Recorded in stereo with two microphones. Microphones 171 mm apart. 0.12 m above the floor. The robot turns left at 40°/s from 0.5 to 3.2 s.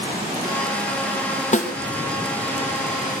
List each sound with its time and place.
1.5 s a snare drum: 45° left (ahead or behind), 2.5 m; by 1.7 s 50° left (ahead or behind), 2.5 m